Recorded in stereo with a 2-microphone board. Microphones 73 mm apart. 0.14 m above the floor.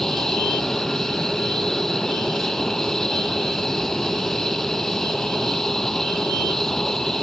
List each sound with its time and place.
0.0 s an aircraft: 5° left (ahead or behind)